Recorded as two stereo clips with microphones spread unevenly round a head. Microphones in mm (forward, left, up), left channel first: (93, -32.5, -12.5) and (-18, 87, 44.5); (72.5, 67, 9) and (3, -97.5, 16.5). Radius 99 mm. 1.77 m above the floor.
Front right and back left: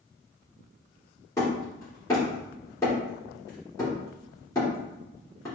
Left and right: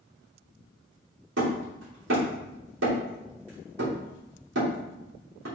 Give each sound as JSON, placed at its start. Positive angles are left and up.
{"t": 1.4, "sound": "hammering", "azimuth_deg": -130, "distance_m": 3.0}